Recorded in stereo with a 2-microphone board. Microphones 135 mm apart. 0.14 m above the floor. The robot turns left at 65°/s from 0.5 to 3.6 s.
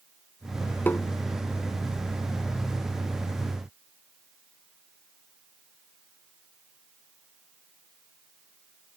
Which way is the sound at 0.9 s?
15° left (ahead or behind).